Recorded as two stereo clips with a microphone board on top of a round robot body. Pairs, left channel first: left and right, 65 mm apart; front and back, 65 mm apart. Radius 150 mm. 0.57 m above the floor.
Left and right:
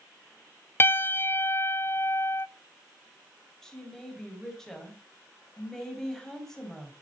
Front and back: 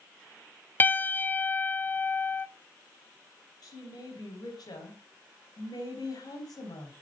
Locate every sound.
0.8 s a piano: 45° left, 0.6 m
3.6 s a woman speaking: 5° left, 4 m